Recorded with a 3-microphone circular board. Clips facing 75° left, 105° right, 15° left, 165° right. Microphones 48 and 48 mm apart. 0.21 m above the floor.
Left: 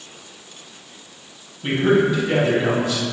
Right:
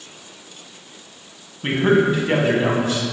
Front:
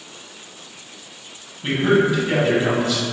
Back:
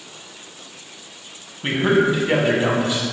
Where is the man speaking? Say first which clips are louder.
Right 1 dB, even; 115° right, 1.5 m.